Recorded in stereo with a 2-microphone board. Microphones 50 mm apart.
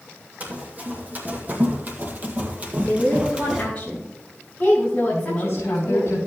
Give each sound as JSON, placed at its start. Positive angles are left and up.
{"t": 0.4, "sound": "running footsteps", "side_deg": -30, "distance_m": 2.5}
{"t": 2.8, "sound": "a woman speaking", "side_deg": 25, "distance_m": 4.5}
{"t": 5.1, "sound": "a woman speaking", "side_deg": 55, "distance_m": 3.5}